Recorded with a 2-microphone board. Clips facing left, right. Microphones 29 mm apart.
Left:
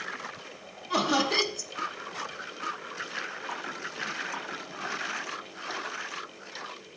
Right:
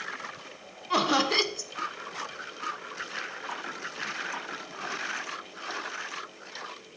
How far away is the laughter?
About 0.8 m.